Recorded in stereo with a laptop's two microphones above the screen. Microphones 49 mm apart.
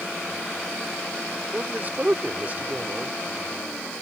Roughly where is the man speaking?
Right.